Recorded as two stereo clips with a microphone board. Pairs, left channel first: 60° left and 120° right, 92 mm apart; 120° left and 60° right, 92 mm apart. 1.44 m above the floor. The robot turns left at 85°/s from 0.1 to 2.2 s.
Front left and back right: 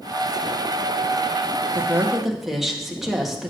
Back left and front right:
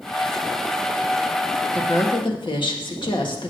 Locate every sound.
1.7 s a woman speaking: 170° right, 1.8 m; by 3.5 s 155° left, 1.8 m